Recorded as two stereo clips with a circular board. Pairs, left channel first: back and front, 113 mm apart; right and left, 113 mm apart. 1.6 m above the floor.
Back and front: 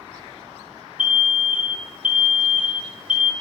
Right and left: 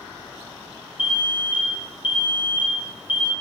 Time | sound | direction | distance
1.0 | an alarm | 160° left | 1.1 m